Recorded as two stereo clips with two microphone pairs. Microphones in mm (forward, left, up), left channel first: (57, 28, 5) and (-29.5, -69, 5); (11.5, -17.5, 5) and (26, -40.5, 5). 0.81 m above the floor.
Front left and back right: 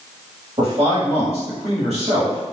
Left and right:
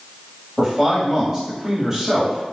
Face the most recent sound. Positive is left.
turn(degrees=-135)